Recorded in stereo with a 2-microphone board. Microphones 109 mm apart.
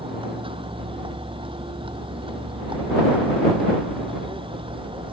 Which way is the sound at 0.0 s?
55° right (ahead or behind).